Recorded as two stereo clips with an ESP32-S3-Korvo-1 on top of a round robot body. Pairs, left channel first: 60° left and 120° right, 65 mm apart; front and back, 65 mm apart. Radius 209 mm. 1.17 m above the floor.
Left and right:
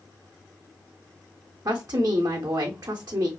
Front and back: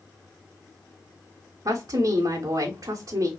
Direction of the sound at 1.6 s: 150° right.